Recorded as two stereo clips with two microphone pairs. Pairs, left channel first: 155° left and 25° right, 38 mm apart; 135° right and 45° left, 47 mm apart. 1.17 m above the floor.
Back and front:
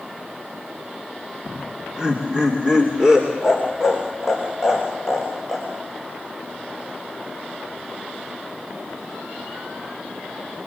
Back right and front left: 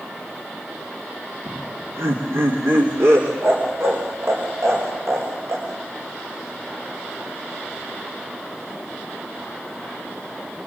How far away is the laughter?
About 3 m.